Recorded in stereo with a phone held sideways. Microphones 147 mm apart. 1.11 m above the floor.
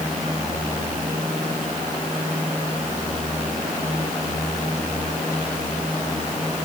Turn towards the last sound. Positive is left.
No sound to turn to.